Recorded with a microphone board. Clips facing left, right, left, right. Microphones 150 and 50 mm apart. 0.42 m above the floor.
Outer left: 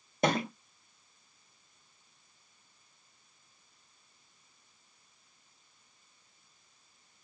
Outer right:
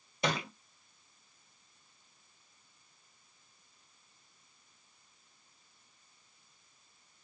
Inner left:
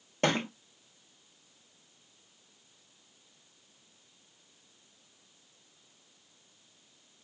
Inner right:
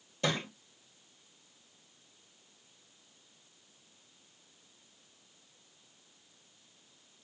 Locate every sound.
0.2 s a thud: 50° left (ahead or behind), 0.8 m